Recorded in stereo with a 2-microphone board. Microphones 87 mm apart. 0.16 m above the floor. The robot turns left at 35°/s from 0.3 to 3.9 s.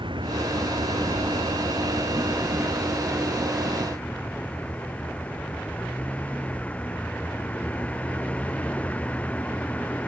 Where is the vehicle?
70° right; by 10.1 s 165° left.